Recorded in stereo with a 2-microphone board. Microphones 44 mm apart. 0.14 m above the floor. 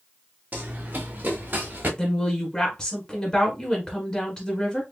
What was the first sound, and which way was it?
Running footsteps, 45° right (ahead or behind).